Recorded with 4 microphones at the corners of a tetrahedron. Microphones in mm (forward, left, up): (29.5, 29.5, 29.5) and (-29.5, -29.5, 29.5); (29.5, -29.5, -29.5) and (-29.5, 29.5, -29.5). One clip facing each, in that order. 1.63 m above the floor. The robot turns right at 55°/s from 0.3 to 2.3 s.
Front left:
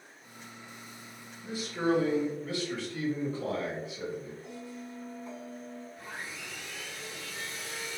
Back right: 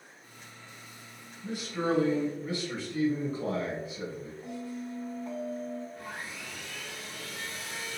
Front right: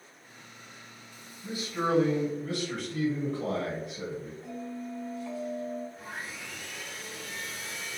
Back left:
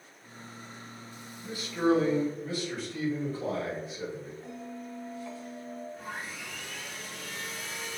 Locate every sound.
1.4 s a man speaking: 120° right, 1.6 m; by 4.3 s 75° right, 1.6 m
4.4 s a bell: 135° right, 0.9 m
6.0 s sawing: 135° right, 1.6 m